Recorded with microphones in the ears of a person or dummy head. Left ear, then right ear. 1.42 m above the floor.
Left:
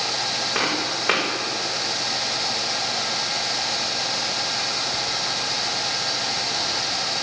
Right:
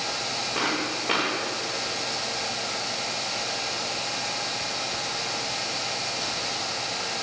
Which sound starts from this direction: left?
Footsteps, at 0.6 s.